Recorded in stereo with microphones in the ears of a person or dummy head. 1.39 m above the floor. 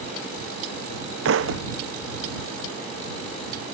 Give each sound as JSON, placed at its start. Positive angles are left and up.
{"t": 1.2, "sound": "a thud", "side_deg": -70}